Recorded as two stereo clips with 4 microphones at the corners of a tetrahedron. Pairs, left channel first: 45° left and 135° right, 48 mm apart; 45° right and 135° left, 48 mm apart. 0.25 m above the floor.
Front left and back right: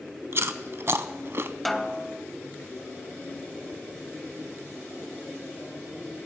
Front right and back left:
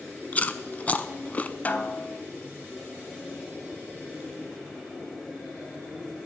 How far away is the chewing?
About 0.5 m.